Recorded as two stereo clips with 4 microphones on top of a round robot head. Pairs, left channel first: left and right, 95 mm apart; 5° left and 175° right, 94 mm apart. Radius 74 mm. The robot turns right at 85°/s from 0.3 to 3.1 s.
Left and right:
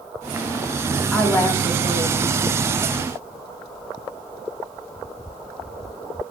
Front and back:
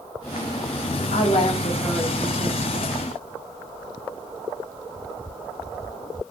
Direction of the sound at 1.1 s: 5° right.